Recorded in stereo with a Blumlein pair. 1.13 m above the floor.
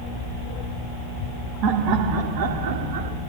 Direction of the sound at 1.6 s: 40° right.